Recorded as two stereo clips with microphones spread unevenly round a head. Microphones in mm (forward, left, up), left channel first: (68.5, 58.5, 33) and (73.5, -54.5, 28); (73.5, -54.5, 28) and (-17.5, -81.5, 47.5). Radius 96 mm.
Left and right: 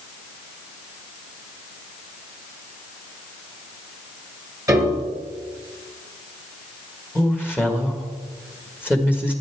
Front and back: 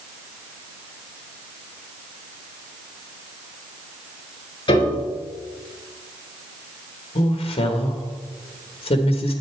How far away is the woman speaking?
About 1.7 m.